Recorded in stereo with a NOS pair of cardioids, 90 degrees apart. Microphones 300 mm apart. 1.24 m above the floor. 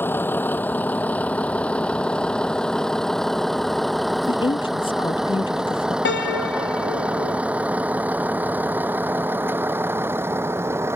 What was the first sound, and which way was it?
A vehicle, 5° left.